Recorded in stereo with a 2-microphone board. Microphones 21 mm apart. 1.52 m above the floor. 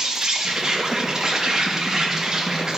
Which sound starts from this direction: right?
An insect, at 0.0 s.